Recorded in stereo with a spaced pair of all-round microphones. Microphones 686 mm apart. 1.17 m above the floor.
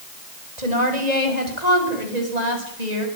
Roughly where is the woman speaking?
Right.